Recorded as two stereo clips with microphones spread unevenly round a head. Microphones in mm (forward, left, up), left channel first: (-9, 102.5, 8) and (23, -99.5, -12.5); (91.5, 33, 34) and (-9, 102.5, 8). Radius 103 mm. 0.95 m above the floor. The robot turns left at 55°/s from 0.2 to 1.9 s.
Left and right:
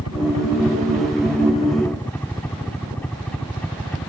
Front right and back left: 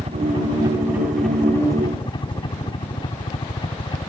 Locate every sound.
0.0 s a helicopter: 110° left; by 4.1 s 15° left